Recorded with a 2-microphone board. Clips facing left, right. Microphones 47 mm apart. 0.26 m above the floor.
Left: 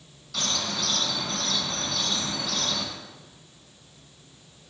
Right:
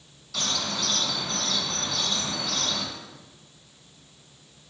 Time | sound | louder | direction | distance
0.3 | a bird | even | centre (ahead or behind) | 1.2 m